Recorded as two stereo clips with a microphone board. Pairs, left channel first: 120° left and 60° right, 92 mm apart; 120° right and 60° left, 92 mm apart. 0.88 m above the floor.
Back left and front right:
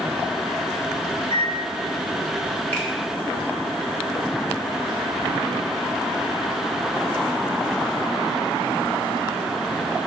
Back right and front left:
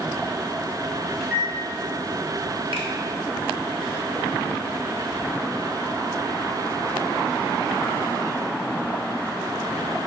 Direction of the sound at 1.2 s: 150° left.